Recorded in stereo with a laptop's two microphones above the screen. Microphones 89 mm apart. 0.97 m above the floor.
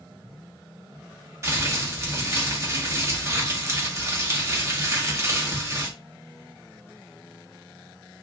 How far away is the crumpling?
About 1.4 m.